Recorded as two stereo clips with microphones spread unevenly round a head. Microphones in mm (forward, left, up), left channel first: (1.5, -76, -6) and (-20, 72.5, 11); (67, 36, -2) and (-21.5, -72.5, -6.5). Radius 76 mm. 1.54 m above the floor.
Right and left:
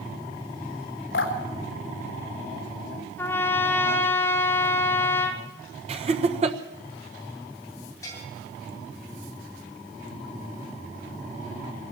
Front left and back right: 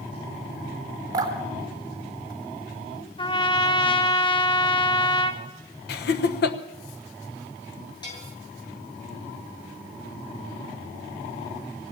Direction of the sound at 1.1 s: 65° right.